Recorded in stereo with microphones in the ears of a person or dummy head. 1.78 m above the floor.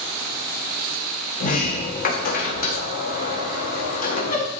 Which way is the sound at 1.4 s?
45° left (ahead or behind).